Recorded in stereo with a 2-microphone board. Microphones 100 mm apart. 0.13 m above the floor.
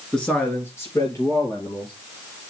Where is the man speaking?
5° left (ahead or behind), 1.9 m; by 1.9 s 40° left (ahead or behind), 3.5 m.